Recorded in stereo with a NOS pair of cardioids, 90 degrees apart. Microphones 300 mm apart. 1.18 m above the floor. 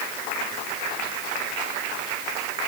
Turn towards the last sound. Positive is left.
No sound to turn to.